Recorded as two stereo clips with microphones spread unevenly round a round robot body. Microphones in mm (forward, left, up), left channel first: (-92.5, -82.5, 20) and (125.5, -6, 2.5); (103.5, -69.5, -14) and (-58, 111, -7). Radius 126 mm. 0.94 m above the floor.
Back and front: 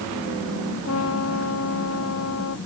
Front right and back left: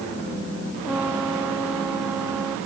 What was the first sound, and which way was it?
A trumpet, 140° right.